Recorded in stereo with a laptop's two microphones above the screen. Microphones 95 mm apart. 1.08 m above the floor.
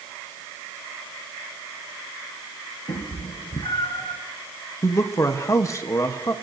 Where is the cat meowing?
75° left (ahead or behind), 4 m.